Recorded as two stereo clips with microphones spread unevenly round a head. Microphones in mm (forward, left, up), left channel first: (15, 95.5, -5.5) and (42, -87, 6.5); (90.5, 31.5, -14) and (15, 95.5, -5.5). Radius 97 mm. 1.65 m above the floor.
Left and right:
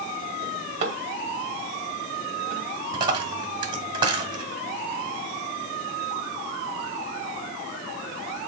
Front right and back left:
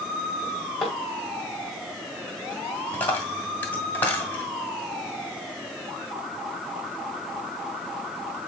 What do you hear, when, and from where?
0.4 s a drawer: 130° right, 2 m
2.9 s a dropped coin: 105° right, 1.5 m